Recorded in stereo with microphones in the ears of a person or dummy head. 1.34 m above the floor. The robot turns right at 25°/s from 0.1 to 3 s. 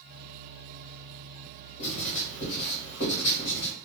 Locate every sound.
1.8 s writing: 40° left, 2.0 m; by 3.7 s 70° left, 2.0 m